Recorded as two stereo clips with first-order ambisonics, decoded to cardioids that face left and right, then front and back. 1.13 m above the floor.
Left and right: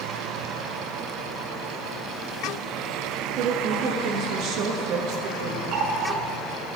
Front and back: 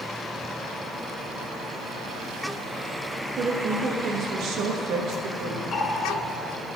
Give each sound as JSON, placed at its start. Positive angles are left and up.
{"t": 3.3, "sound": "a woman speaking", "azimuth_deg": -130, "distance_m": 1.0}
{"t": 5.7, "sound": "a running tap", "azimuth_deg": -65, "distance_m": 1.0}